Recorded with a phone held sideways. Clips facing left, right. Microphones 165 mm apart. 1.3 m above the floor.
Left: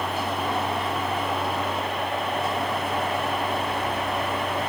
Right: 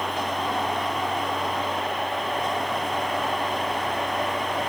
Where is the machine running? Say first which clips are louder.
Even; 5° left (ahead or behind).